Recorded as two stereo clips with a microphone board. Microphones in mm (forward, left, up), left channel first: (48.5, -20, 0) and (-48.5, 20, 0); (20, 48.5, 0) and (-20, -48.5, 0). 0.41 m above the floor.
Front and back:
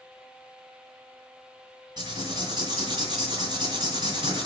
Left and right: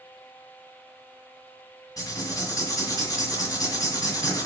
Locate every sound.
2.0 s writing: 120° left, 2 m